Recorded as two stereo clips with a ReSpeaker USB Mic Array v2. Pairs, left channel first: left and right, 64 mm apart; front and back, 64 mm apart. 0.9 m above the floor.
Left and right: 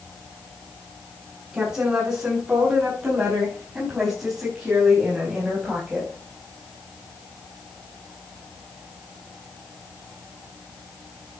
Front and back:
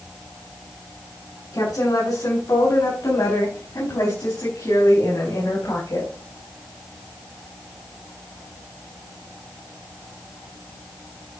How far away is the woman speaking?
About 6.5 m.